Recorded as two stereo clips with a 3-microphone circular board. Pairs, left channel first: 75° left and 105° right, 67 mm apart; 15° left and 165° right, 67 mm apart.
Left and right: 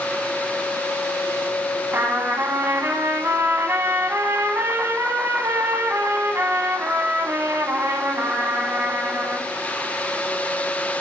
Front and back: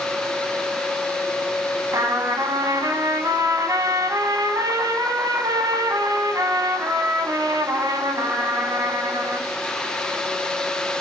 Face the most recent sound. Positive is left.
turn(degrees=-150)